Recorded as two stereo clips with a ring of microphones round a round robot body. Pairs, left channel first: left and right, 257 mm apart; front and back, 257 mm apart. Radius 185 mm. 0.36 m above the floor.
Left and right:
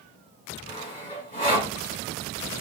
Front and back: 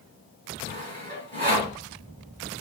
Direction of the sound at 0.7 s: 140° left.